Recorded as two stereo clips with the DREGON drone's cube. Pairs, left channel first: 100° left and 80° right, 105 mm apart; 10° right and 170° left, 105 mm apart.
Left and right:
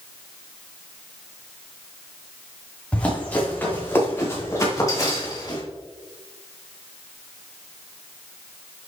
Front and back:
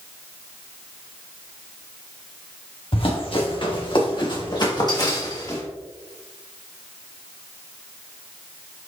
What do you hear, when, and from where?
2.9 s running footsteps: 20° left, 4.5 m; by 5.6 s 45° left, 4 m